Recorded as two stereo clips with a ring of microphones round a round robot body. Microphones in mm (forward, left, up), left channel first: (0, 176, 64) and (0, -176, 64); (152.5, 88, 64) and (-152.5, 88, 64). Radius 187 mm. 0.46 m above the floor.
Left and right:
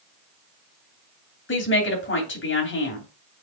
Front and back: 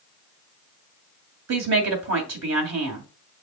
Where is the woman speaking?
145° left, 2.5 m.